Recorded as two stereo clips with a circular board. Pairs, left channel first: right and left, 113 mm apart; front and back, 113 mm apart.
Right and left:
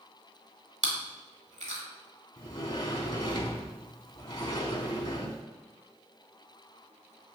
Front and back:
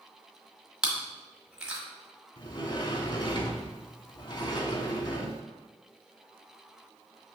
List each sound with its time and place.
0.8 s chewing: 95° left, 1.2 m
2.4 s a sliding door: 45° right, 0.6 m